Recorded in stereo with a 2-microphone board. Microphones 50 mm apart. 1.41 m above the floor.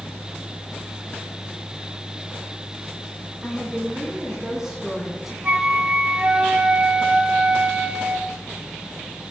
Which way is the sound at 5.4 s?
35° right (ahead or behind).